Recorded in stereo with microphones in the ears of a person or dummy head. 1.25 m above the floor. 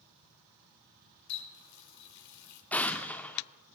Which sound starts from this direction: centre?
An explosion, at 2.7 s.